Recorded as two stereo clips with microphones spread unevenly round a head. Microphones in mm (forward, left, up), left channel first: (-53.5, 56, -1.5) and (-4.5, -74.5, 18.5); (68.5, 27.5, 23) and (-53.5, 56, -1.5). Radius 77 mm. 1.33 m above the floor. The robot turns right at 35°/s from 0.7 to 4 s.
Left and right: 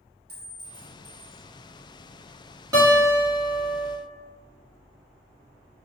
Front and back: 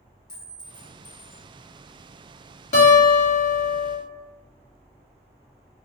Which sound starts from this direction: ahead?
A guitar, at 2.7 s.